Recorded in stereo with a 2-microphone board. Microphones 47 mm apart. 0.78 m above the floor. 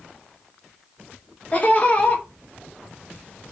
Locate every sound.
1.5 s laughter: 30° left (ahead or behind), 0.7 m